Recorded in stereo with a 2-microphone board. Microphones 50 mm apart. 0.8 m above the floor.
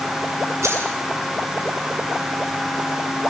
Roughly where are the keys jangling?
Right.